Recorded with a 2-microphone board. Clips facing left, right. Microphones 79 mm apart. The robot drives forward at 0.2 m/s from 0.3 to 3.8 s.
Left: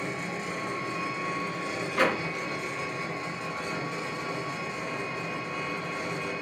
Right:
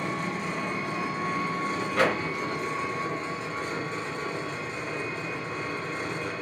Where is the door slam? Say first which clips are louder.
Right 1 dB; 65° right (ahead or behind), 1.2 m; by 2.2 s 60° right (ahead or behind), 1.2 m.